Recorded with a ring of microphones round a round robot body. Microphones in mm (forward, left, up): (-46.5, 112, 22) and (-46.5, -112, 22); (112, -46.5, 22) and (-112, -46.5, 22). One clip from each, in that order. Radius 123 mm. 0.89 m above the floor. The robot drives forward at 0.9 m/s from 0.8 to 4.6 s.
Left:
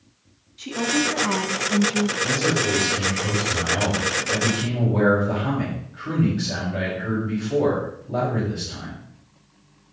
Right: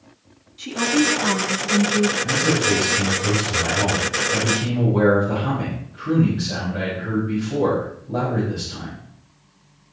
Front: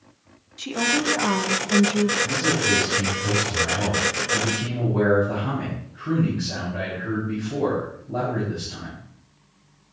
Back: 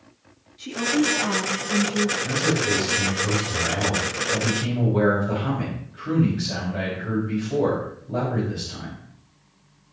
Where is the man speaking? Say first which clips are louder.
Right 2 dB, front 1 dB; 120° left, 5.5 m; by 9.0 s 140° left, 6.5 m.